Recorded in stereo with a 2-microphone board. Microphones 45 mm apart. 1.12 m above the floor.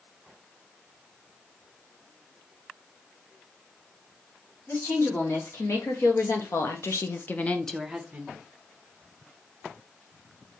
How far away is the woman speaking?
About 2 m.